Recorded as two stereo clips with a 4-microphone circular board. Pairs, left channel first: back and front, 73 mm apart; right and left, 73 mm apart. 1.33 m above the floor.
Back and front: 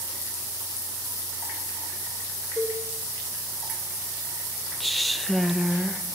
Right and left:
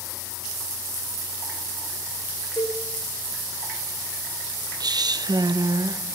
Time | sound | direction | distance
2.6 | a cowbell | 125° right | 3 m
4.8 | a woman speaking | 90° left | 0.7 m